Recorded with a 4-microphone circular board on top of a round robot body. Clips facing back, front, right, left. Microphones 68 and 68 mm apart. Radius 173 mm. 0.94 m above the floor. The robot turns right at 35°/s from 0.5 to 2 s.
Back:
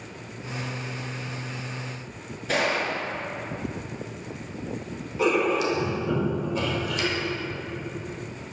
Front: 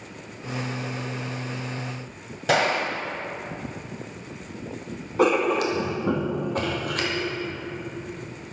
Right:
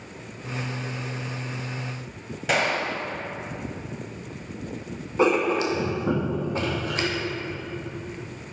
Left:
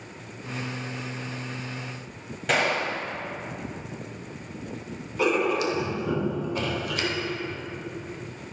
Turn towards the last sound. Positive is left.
turn(degrees=-30)